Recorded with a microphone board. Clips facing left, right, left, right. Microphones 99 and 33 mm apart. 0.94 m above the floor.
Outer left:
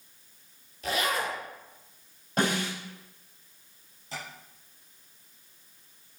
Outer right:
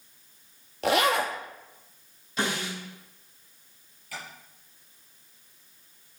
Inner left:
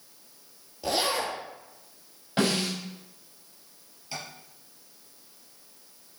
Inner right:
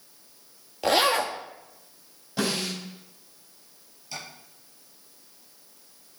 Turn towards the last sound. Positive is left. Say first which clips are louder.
# outer left 1 dB, inner left 1 dB
turn(degrees=25)  # may be behind; listen again after turning